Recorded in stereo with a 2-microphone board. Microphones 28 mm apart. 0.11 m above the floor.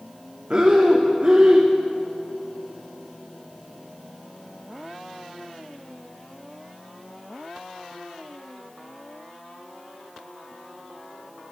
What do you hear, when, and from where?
0.5 s breathing: 40° right (ahead or behind), 1.9 m